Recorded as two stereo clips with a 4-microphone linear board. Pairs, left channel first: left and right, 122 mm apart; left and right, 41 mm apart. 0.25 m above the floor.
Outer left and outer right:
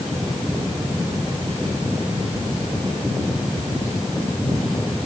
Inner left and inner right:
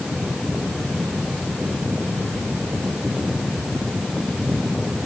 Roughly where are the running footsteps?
No running footsteps in this recording.